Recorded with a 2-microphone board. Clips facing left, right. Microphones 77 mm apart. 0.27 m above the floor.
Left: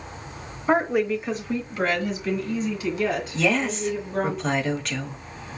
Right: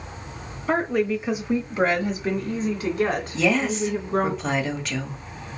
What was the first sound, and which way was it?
A woman speaking, 20° left (ahead or behind).